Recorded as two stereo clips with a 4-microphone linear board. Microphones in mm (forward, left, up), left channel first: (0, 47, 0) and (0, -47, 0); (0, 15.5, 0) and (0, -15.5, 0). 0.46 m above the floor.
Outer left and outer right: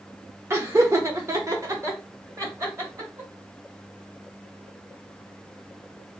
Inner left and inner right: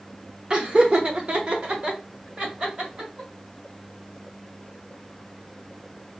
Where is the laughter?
30° right (ahead or behind), 0.9 m; by 3.3 s 35° right (ahead or behind), 2 m.